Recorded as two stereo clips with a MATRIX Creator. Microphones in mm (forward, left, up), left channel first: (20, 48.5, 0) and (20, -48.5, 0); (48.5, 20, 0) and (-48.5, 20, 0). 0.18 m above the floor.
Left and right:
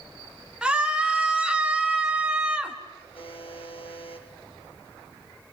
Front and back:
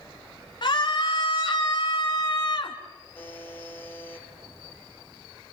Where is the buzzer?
70° left, 3.5 m.